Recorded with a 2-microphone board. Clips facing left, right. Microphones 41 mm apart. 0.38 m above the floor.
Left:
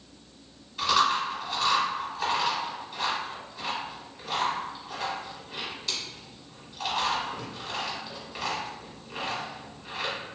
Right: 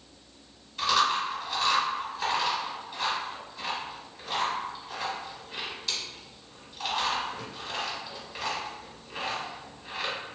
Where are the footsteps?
I don't hear footsteps.